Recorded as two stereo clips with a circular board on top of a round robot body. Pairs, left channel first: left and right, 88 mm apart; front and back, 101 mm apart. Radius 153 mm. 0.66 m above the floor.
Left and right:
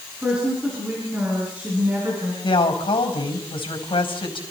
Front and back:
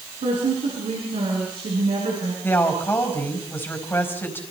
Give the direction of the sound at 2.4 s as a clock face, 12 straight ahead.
10 o'clock.